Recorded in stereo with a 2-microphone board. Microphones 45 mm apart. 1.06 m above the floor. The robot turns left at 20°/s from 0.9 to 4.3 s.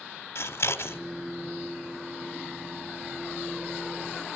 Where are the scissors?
60° left (ahead or behind), 1.4 m; by 1.0 s 55° left (ahead or behind), 1.4 m.